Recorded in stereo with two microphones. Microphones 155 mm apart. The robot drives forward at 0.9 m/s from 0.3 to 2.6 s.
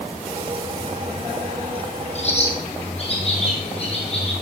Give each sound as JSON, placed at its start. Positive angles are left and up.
{"t": 2.1, "sound": "a bird", "side_deg": 45, "distance_m": 3.0}